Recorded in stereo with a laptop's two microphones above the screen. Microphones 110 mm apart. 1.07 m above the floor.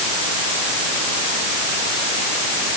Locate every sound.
Only background noise.